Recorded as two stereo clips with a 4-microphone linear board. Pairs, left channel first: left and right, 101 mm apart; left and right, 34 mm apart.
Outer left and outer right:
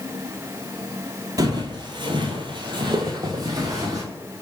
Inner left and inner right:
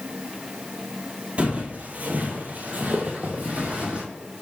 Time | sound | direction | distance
1.4 | footsteps | 40° right (ahead or behind) | 1.0 m